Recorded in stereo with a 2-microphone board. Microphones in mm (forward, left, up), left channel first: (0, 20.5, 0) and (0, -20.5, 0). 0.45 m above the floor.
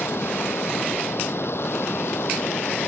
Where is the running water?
85° left.